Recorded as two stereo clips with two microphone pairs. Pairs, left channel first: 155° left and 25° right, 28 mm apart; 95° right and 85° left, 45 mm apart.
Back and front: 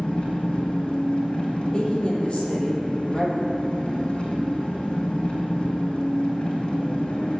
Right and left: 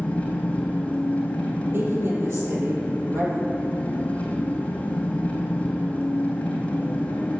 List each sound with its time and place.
0.0 s an engine running: 160° right, 2.5 m
1.7 s a woman speaking: 105° left, 3.5 m